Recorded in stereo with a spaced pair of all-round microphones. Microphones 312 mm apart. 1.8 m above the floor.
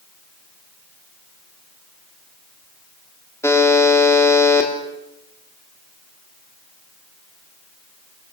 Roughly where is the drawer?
No drawer in this recording.